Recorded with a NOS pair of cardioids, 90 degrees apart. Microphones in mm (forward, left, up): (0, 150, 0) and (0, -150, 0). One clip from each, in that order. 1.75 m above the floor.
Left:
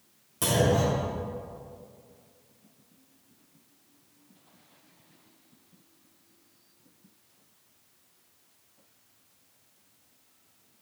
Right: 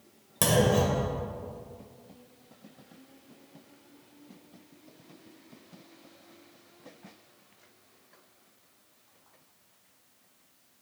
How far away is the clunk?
About 2 m.